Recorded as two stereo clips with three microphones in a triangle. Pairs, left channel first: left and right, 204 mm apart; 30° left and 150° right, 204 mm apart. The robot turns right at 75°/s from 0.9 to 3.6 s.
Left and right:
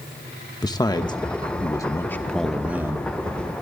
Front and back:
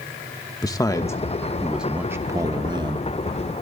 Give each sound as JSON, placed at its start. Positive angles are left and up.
{"t": 0.6, "sound": "a man speaking", "azimuth_deg": 65, "distance_m": 1.0}